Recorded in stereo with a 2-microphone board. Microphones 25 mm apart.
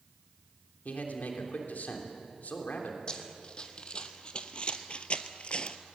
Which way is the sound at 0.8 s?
65° left (ahead or behind).